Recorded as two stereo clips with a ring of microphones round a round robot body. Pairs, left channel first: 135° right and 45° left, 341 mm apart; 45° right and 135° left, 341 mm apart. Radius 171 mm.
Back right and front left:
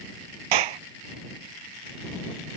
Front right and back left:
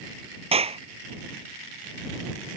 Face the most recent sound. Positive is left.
turn(degrees=60)